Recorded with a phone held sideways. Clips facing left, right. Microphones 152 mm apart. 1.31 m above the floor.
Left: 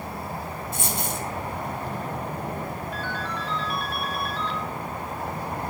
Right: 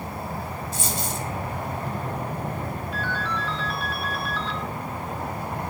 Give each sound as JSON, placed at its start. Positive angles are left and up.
{"t": 0.7, "sound": "a dropped coin", "side_deg": 60, "distance_m": 2.5}
{"t": 2.9, "sound": "a ringtone", "side_deg": 55, "distance_m": 2.5}